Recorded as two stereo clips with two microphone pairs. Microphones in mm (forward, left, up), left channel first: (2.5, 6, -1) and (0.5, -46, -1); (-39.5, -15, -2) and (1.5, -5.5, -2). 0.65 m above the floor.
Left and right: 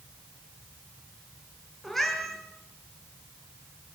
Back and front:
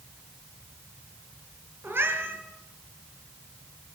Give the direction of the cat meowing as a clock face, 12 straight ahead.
12 o'clock.